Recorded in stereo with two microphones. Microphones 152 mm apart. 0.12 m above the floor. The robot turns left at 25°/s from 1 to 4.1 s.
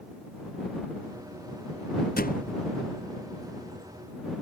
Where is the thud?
75° left (ahead or behind); by 2.6 s 65° left (ahead or behind).